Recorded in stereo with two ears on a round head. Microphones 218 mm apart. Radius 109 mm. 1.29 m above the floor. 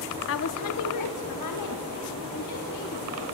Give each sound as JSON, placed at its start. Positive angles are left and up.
{"t": 0.3, "sound": "a woman speaking", "side_deg": 50, "distance_m": 0.9}